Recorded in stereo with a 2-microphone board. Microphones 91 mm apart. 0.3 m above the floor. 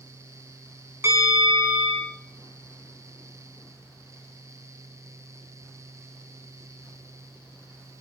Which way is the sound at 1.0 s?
30° right (ahead or behind).